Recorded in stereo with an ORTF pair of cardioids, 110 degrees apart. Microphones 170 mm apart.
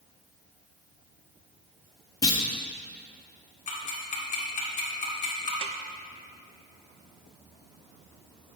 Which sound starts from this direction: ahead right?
A snare drum, at 5.6 s.